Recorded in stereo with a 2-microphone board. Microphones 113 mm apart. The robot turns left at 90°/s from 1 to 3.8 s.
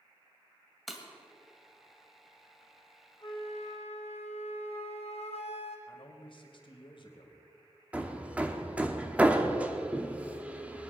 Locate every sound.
0.9 s breaking glass: centre (ahead or behind), 2 m; by 1.1 s 5° left (ahead or behind), 2 m
3.2 s a flute: 140° left, 2.5 m; by 5.8 s 85° left, 2.5 m
5.9 s a man speaking: 50° left (ahead or behind), 2.5 m
7.9 s hammering: 10° right (ahead or behind), 1.2 m